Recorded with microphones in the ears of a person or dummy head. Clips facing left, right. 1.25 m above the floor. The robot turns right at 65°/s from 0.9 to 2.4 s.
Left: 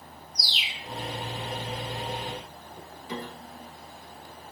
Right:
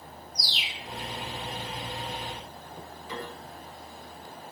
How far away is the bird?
About 0.8 m.